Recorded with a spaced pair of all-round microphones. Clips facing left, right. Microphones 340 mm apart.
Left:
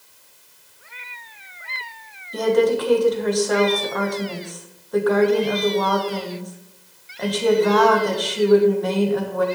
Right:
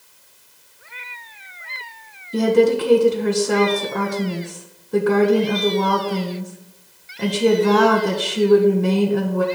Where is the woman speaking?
35° right (ahead or behind), 1.2 m.